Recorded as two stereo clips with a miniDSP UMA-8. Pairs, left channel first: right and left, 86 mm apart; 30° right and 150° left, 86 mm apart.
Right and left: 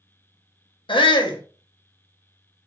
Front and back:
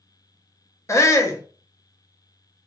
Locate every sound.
0.9 s a shout: 85° right, 0.7 m